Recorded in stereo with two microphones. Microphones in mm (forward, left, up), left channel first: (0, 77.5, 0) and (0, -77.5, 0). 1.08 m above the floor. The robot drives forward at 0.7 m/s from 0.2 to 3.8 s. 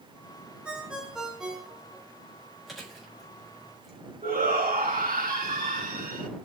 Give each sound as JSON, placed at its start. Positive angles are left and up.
{"t": 0.7, "sound": "a ringtone", "side_deg": -5, "distance_m": 1.3}
{"t": 2.7, "sound": "chewing", "side_deg": 0, "distance_m": 4.0}
{"t": 4.2, "sound": "a shout", "side_deg": -70, "distance_m": 1.8}